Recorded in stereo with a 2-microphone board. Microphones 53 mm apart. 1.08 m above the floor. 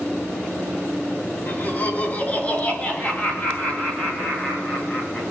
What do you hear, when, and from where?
1.5 s laughter: 40° left (ahead or behind), 3.5 m; by 5.2 s 20° left (ahead or behind), 7.5 m